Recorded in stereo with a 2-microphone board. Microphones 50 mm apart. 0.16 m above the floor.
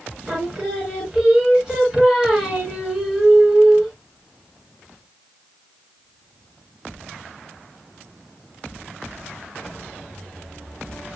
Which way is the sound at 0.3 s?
10° right (ahead or behind).